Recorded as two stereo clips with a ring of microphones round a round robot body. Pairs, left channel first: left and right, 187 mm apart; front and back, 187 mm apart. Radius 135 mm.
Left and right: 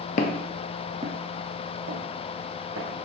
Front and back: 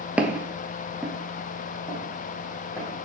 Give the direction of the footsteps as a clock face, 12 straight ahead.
9 o'clock.